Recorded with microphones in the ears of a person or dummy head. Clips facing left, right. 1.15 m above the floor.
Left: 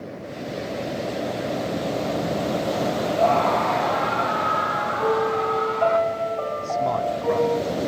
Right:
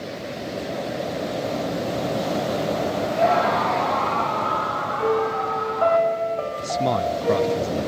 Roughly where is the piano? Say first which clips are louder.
Even; right.